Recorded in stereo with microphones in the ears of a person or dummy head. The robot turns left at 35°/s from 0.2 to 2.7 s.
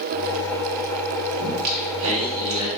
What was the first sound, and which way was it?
Singing, 55° right.